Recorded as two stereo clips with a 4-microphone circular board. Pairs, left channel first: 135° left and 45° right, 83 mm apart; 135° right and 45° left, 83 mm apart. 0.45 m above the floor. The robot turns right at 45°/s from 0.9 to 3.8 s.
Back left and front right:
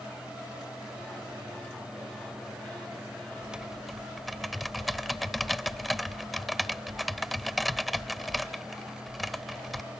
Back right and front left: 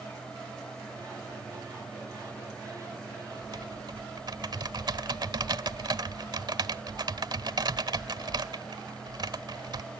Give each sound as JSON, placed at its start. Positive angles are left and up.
{"t": 3.4, "sound": "typing on a keyboard", "azimuth_deg": 30}